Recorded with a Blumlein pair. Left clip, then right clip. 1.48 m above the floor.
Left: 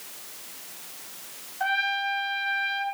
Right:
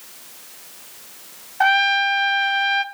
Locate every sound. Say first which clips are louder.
1.6 s a trumpet: right 9 dB; 45° right, 0.5 m